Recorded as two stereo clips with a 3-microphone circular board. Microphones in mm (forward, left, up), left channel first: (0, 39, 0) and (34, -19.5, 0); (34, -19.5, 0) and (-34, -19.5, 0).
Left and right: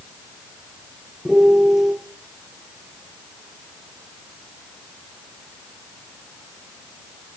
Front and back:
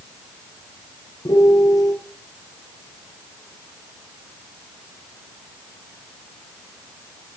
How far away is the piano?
About 5 m.